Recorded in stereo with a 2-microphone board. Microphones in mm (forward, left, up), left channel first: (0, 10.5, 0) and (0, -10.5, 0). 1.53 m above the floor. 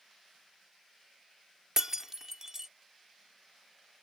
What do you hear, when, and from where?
1.8 s breaking glass: 25° right (ahead or behind)